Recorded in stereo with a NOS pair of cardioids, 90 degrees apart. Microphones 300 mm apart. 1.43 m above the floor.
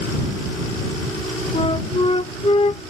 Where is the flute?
20° left.